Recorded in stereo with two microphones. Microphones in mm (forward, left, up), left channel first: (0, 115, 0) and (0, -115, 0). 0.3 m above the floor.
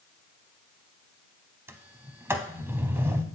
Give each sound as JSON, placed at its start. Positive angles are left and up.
{"t": 1.7, "sound": "a sliding door", "side_deg": -10, "distance_m": 0.6}